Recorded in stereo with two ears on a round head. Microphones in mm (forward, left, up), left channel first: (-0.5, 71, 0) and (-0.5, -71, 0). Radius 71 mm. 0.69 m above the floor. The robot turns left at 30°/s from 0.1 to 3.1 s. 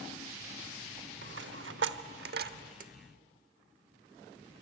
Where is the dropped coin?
75° right (ahead or behind), 1.0 m; by 2.9 s 55° right (ahead or behind), 1.0 m.